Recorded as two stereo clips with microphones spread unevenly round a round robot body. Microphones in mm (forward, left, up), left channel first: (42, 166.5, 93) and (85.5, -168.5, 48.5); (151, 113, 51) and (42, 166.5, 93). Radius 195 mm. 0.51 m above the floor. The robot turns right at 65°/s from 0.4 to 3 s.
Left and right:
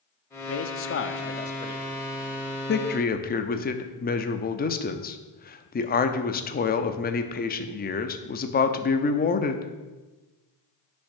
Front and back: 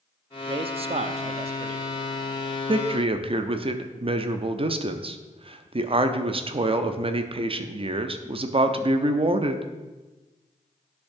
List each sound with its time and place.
0.5 s a man speaking: 100° left, 0.7 m; by 1.8 s 170° right, 0.7 m
2.7 s a man speaking: 120° left, 0.7 m; by 9.7 s 140° left, 0.7 m